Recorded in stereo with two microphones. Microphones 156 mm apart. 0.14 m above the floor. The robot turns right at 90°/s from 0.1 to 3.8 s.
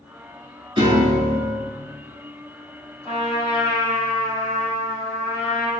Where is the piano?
40° right, 0.8 m; by 1.6 s 40° left, 0.8 m.